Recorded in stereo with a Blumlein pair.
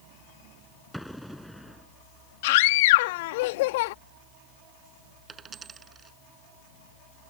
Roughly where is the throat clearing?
I don't hear throat clearing.